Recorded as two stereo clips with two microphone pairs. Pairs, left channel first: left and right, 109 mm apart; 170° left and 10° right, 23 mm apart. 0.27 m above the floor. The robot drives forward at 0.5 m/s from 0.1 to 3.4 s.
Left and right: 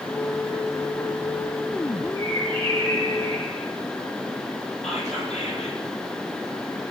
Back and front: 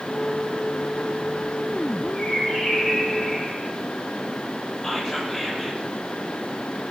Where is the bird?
105° left, 5 m; by 3.7 s 110° left, 5.5 m.